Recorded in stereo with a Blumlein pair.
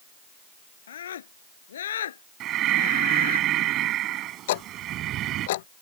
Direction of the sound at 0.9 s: 65° left.